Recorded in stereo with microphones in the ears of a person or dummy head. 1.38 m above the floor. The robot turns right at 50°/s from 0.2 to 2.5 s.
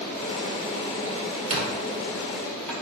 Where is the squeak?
35° right (ahead or behind), 1.6 m; by 2.7 s 5° left (ahead or behind), 1.6 m.